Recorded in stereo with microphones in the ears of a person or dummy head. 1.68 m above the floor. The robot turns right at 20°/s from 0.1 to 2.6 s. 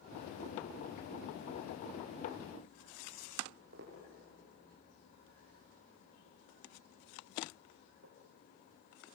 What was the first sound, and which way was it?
Footsteps, 55° right (ahead or behind).